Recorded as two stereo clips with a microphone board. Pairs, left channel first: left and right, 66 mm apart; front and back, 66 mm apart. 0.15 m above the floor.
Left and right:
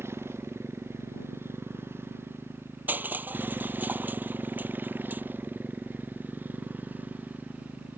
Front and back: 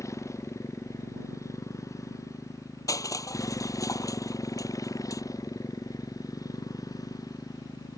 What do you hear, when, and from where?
0.0 s a motorcycle: 40° right; by 8.0 s 25° right
2.9 s crushing: 30° right